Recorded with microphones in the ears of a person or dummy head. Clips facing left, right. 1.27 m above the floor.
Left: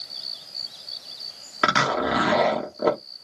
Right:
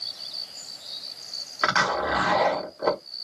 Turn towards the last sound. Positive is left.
turn(degrees=45)  # may be behind; listen again after turning